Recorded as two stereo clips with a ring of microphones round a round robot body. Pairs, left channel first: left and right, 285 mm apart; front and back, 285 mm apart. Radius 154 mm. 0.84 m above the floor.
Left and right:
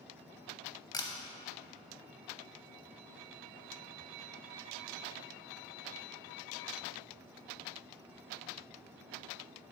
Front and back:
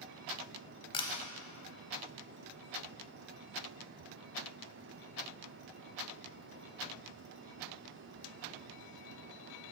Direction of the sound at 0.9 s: 40° left.